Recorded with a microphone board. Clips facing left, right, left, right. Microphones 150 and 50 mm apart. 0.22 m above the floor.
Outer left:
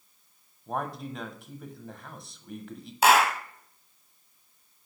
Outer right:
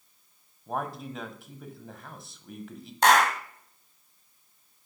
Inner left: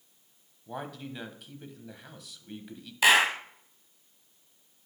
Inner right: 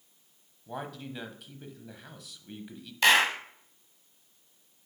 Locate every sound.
0.7 s a man speaking: centre (ahead or behind), 1.1 m
3.0 s a clap: 5° left (ahead or behind), 1.0 m